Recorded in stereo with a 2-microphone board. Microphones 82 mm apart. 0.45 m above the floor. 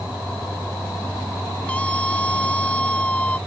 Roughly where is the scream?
Centre.